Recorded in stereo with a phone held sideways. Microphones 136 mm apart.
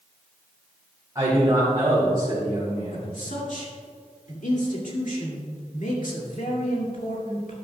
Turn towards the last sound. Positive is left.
turn(degrees=70)  # may be behind; listen again after turning